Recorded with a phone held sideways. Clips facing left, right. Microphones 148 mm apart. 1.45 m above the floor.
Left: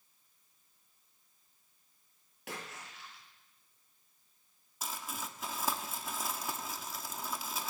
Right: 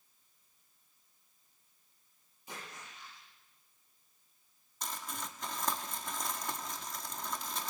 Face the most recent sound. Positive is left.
turn(degrees=5)  # may be behind; listen again after turning